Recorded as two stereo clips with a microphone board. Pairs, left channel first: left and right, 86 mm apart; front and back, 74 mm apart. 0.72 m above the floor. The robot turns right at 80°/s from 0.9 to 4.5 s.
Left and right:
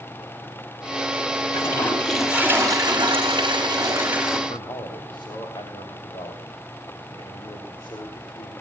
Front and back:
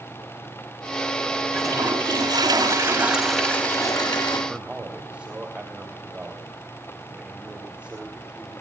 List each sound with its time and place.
1.5 s a toilet flushing: 130° left, 6 m; by 4.4 s straight ahead, 6 m
4.5 s a man speaking: 105° left, 3 m